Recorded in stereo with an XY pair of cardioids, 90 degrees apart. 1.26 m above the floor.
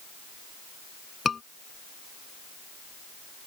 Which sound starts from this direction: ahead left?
A scream, at 1.2 s.